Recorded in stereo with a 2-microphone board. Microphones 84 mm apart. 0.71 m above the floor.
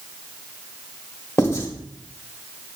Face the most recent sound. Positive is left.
turn(degrees=35)  # may be behind; listen again after turning